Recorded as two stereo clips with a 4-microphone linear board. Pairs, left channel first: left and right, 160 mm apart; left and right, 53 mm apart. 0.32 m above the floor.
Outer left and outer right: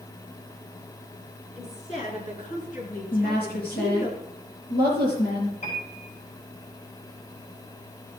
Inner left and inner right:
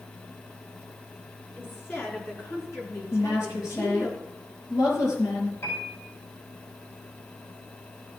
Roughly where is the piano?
Left.